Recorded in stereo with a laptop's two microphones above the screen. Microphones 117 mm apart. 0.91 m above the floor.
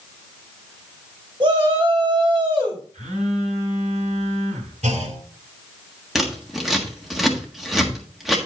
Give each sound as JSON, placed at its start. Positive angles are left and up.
{"t": 1.4, "sound": "a shout", "side_deg": -45, "distance_m": 4.5}
{"t": 2.9, "sound": "a phone buzzing", "side_deg": -85, "distance_m": 4.0}
{"t": 4.8, "sound": "a clunk", "side_deg": -85, "distance_m": 2.5}
{"t": 6.2, "sound": "scissors", "side_deg": 0, "distance_m": 1.4}